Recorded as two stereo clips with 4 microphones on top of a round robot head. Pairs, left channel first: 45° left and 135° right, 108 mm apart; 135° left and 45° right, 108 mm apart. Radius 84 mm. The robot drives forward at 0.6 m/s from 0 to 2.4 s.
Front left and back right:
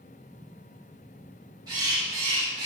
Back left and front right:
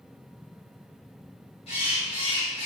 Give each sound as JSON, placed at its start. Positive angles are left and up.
{"t": 1.7, "sound": "a bird", "azimuth_deg": 170, "distance_m": 3.5}